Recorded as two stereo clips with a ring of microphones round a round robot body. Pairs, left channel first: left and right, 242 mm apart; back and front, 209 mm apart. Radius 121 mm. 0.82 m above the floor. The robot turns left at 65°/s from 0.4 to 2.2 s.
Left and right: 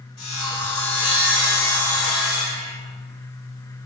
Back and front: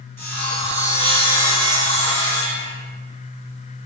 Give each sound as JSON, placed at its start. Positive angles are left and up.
{"t": 0.2, "sound": "sawing", "azimuth_deg": 105, "distance_m": 1.4}